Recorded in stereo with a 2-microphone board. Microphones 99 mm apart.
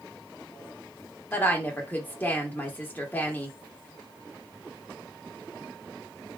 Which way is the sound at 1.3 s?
20° left (ahead or behind).